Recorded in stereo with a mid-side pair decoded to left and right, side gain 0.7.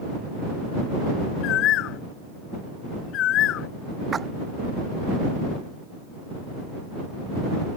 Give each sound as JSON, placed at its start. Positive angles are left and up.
{"t": 1.4, "sound": "a bird", "azimuth_deg": 55}
{"t": 4.1, "sound": "a splash", "azimuth_deg": -25}